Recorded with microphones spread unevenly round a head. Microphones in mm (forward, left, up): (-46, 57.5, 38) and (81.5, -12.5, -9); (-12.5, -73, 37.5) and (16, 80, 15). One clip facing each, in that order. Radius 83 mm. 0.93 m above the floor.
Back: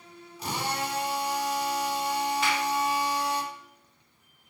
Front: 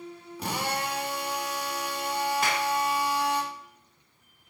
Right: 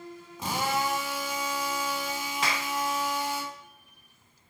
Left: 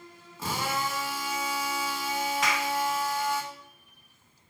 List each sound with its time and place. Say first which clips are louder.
0.4 s a drill: front 1 dB, right 2 dB; 25° right, 2 m
2.4 s a clap: even, left 3 dB; 40° right, 0.8 m